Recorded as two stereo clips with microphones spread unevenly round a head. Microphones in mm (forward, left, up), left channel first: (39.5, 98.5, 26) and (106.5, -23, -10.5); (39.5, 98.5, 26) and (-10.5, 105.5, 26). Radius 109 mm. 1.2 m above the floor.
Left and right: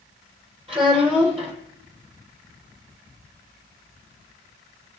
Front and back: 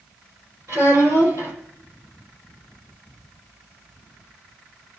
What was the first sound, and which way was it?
A child speaking, 130° right.